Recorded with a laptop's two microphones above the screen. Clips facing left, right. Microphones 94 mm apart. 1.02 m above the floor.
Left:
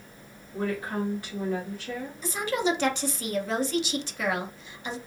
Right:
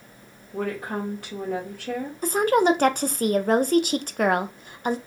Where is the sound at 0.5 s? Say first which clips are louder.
Right 1 dB; 70° right (ahead or behind), 1.7 m.